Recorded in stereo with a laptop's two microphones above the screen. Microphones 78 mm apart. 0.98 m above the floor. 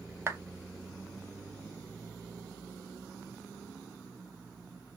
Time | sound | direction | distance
0.3 | a clap | 35° right (ahead or behind) | 0.7 m